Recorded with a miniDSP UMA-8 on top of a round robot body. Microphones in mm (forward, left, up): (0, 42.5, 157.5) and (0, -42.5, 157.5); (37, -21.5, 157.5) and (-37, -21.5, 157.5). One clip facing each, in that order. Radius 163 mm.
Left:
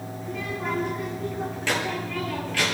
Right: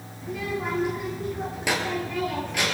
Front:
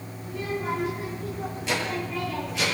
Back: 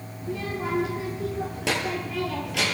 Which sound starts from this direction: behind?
A child speaking, at 0.2 s.